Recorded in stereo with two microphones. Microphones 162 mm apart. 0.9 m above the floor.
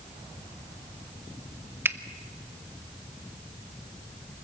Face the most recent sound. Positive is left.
turn(degrees=-15)  # may be behind; listen again after turning